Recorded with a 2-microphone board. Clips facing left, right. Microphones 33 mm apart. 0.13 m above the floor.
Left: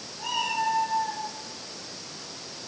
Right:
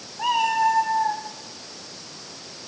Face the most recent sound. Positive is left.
turn(degrees=-80)